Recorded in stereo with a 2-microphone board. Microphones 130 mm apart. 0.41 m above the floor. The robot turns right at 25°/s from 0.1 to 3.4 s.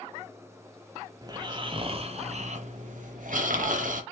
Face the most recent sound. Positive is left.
turn(degrees=-95)